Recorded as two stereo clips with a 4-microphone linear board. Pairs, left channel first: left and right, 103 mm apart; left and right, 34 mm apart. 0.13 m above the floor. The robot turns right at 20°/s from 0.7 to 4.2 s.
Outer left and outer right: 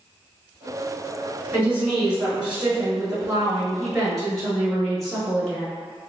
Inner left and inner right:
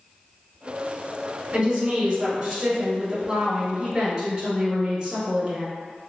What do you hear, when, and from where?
1.5 s a woman speaking: 15° right (ahead or behind), 1.0 m; by 5.7 s centre (ahead or behind), 1.0 m